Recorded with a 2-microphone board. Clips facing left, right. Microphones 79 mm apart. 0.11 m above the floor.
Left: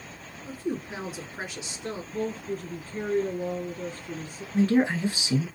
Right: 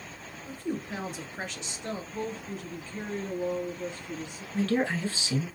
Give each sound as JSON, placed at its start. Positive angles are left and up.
{"t": 0.5, "sound": "a woman speaking", "side_deg": 5, "distance_m": 1.6}
{"t": 2.1, "sound": "a woman speaking", "side_deg": 40, "distance_m": 2.0}
{"t": 4.5, "sound": "a man speaking", "side_deg": 15, "distance_m": 1.1}